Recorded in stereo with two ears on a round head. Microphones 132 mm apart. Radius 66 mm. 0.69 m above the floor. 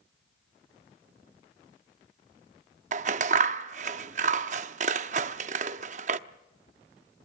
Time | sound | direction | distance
2.9 | scissors | 50° right (ahead or behind) | 0.6 m